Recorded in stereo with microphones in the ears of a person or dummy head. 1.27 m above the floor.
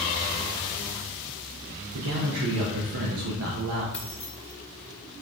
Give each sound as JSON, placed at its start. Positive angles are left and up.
{"t": 1.9, "sound": "a man speaking", "side_deg": -75, "distance_m": 0.7}
{"t": 3.9, "sound": "keys jangling", "side_deg": 10, "distance_m": 0.6}